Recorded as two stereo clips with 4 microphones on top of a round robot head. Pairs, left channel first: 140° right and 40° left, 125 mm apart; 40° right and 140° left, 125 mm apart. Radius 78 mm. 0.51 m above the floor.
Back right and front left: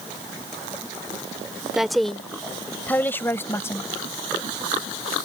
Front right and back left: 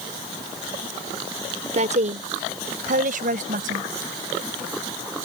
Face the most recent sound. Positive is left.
turn(degrees=150)